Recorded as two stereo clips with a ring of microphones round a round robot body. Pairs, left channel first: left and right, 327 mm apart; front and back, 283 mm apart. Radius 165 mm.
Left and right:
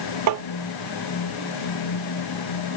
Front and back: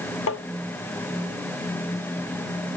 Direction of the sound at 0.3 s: 50° right.